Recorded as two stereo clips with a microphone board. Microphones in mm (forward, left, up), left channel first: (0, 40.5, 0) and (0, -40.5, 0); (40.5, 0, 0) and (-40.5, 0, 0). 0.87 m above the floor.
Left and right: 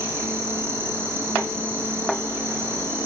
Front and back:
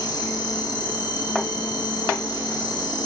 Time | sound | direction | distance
0.0 | an insect | 30° right | 0.8 m